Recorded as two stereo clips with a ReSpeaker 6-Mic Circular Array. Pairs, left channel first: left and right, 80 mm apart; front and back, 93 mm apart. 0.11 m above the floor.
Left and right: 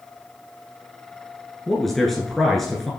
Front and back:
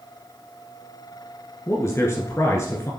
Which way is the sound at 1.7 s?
5° left.